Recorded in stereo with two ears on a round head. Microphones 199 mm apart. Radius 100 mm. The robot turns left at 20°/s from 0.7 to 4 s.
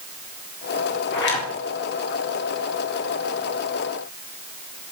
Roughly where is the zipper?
Left.